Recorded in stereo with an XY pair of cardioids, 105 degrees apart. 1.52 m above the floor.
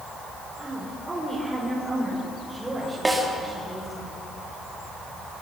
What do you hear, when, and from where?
0.6 s a woman speaking: 20° right, 4.5 m; by 4.0 s 15° right, 6.5 m
3.0 s a snare drum: 15° right, 4 m